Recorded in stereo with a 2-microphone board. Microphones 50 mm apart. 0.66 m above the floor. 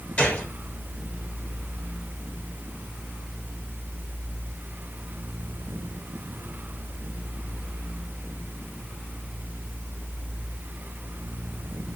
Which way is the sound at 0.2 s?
25° left (ahead or behind).